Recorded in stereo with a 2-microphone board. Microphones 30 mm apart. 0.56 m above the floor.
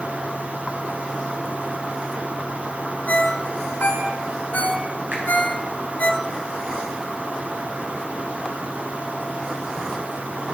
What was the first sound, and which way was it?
A ringtone, 70° left (ahead or behind).